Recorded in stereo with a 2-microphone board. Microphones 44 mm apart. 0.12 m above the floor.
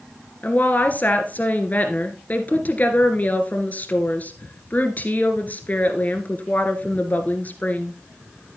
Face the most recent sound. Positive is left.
turn(degrees=40)  # may be behind; listen again after turning